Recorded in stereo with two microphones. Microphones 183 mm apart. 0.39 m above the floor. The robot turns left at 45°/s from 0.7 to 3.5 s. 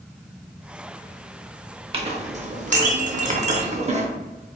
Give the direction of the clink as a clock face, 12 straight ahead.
2 o'clock.